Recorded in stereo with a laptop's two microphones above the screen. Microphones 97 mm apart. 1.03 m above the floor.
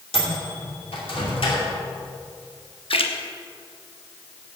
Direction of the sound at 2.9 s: 70° left (ahead or behind).